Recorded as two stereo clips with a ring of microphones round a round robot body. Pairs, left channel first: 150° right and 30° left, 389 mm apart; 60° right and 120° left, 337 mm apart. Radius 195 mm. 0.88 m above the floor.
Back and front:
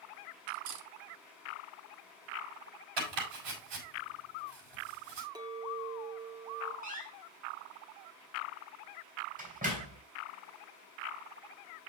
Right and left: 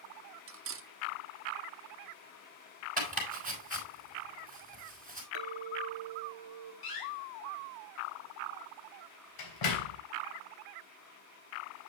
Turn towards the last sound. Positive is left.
turn(degrees=-40)